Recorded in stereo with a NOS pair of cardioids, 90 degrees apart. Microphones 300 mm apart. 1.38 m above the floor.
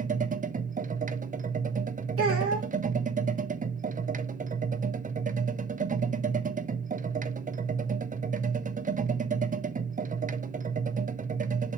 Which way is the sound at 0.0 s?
25° right.